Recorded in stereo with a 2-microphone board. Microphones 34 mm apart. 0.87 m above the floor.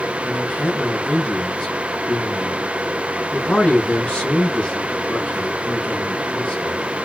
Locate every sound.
0.2 s a man speaking: 35° left (ahead or behind), 3 m